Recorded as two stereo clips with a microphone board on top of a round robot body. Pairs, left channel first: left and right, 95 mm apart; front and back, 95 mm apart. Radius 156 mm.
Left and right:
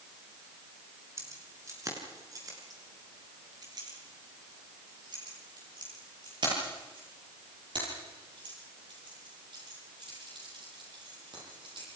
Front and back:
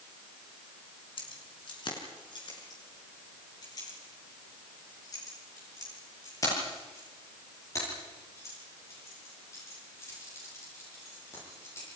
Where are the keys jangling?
30° right, 5.5 m; by 11.9 s 60° right, 17 m.